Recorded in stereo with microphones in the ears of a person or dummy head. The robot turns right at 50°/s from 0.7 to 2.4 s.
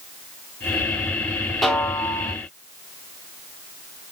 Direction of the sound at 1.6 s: Straight ahead.